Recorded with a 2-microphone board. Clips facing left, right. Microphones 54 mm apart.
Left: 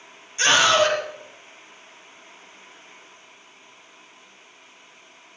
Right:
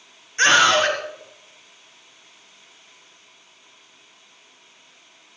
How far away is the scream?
About 3.5 m.